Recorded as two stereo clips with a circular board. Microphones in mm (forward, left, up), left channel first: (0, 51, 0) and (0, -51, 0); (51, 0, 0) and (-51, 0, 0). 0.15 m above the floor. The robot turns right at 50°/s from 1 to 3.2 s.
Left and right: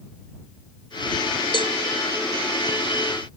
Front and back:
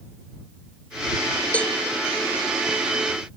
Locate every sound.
1.5 s a cowbell: 75° left; by 1.7 s 85° left